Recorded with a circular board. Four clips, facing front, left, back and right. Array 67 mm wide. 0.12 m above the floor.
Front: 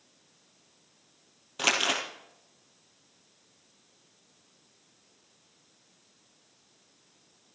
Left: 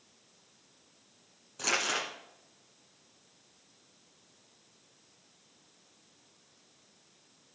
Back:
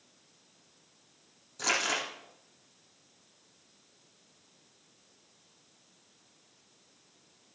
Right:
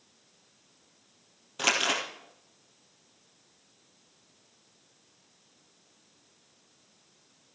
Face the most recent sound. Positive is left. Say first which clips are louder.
# right 4 dB, front 3 dB
turn(degrees=-30)